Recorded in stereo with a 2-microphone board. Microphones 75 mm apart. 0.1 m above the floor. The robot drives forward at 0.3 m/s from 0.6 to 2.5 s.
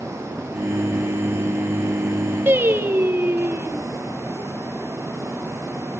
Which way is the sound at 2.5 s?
30° right (ahead or behind).